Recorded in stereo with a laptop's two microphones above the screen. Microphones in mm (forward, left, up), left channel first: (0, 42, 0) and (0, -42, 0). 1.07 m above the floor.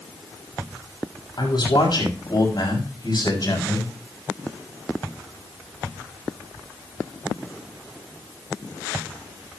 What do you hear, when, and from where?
1.4 s a man speaking: 60° left (ahead or behind), 6.5 m; by 3.9 s 50° left (ahead or behind), 6.5 m